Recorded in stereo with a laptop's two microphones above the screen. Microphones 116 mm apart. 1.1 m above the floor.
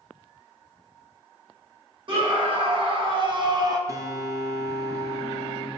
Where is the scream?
45° right (ahead or behind), 1.1 m; by 3.8 s 35° right (ahead or behind), 0.7 m.